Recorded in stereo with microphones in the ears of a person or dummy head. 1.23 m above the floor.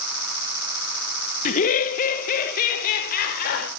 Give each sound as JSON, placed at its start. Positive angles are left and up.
{"t": 1.4, "sound": "laughter", "side_deg": 40, "distance_m": 0.7}